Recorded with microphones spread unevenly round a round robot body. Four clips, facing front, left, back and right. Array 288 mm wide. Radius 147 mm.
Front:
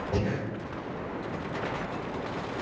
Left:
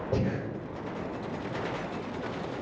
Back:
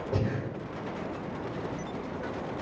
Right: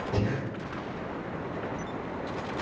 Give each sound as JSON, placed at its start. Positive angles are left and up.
{"t": 0.1, "sound": "breathing", "azimuth_deg": 90, "distance_m": 1.6}